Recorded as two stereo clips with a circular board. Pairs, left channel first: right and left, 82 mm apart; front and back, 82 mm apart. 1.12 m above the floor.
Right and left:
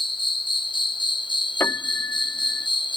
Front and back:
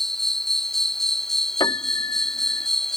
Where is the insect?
85° right.